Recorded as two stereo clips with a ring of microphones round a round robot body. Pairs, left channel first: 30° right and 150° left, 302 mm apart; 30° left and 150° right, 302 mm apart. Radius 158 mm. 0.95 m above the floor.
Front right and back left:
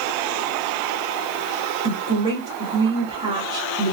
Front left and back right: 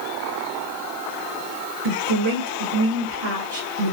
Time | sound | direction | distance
1.8 | a woman speaking | 140° right | 1.8 m